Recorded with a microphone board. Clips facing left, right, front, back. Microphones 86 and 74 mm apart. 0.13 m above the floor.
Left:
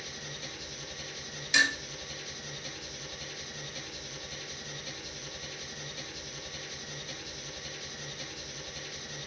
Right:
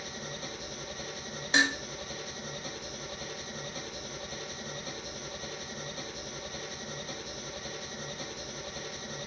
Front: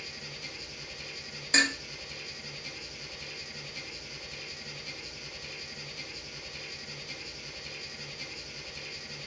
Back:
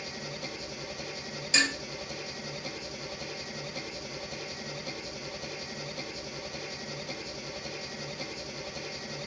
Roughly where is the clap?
No clap in this recording.